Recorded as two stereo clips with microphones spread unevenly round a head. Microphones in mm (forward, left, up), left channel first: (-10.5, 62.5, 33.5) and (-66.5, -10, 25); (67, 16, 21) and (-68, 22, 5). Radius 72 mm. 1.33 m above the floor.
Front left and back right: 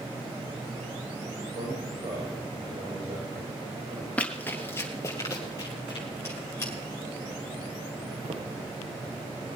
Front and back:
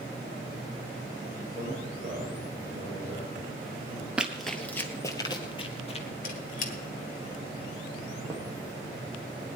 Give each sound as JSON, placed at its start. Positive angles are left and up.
{"t": 1.4, "sound": "a man speaking", "azimuth_deg": -135, "distance_m": 7.5}
{"t": 4.2, "sound": "running footsteps", "azimuth_deg": 90, "distance_m": 1.4}
{"t": 6.2, "sound": "a squeak", "azimuth_deg": -15, "distance_m": 1.8}
{"t": 8.2, "sound": "footsteps", "azimuth_deg": -95, "distance_m": 3.5}